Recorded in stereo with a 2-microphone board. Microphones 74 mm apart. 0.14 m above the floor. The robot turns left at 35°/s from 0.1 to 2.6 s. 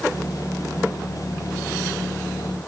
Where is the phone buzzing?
No phone buzzing in this recording.